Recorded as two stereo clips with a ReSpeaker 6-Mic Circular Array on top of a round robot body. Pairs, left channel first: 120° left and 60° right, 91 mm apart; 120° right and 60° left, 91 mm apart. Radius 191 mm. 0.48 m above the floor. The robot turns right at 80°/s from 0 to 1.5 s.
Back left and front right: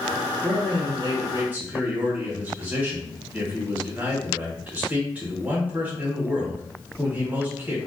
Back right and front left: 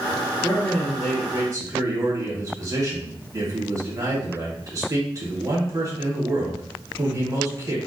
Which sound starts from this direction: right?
A man speaking, at 0.4 s.